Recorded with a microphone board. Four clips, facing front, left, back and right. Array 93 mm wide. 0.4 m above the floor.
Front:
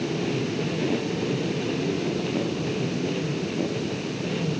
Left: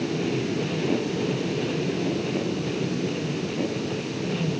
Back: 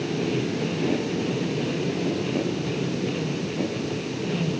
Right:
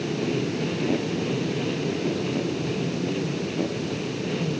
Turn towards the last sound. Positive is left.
No sound to turn to.